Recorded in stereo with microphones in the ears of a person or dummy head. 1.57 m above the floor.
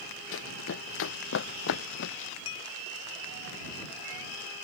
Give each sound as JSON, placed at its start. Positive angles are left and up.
{"t": 0.3, "sound": "running footsteps", "side_deg": 75}
{"t": 2.5, "sound": "dishes clattering", "side_deg": 85}